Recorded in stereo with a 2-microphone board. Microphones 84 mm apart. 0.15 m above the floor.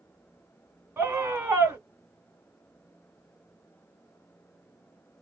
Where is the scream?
25° right (ahead or behind), 1.2 m.